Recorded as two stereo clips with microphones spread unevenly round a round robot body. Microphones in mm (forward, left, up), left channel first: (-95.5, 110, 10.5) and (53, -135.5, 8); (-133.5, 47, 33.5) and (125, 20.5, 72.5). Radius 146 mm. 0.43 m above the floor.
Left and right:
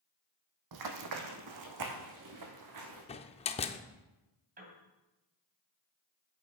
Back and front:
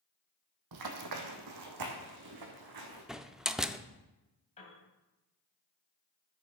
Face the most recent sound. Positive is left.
turn(degrees=-120)